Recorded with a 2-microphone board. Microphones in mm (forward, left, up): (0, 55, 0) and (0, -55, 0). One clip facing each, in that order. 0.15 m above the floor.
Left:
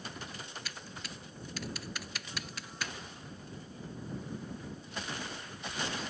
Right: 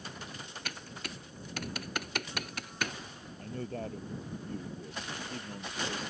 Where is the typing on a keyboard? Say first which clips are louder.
Right 3 dB; 60° right (ahead or behind).